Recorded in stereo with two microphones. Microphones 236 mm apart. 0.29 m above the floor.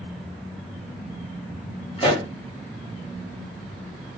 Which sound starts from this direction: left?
A pop, at 2.0 s.